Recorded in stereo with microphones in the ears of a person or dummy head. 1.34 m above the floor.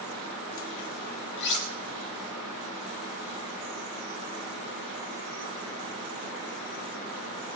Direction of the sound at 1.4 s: 60° left (ahead or behind).